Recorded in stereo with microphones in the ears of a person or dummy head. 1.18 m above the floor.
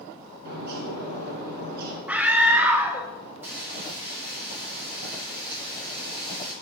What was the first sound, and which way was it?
A bird, 55° right (ahead or behind).